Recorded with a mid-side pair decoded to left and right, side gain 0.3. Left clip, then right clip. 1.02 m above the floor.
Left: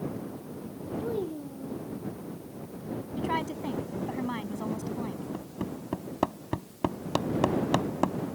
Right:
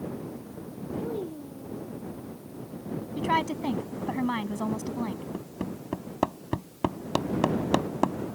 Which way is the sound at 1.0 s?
25° left.